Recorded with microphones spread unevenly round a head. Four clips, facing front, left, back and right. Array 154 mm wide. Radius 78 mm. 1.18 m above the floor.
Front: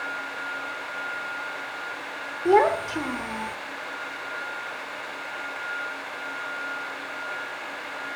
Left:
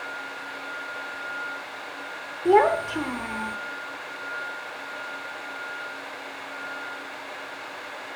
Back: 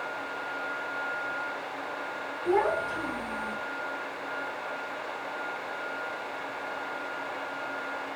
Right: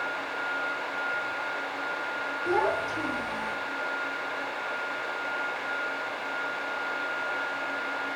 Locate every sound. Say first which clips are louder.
2.5 s a child speaking: left 9 dB, front 7 dB; 45° left, 2.5 m